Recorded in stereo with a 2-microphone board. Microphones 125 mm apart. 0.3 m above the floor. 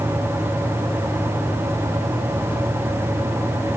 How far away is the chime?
No chime in this recording.